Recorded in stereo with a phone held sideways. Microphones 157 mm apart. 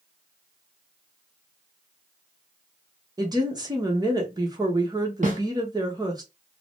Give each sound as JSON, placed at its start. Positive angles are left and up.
{"t": 3.2, "sound": "a woman speaking", "side_deg": -25, "distance_m": 0.9}
{"t": 5.2, "sound": "a snare drum", "side_deg": -50, "distance_m": 1.4}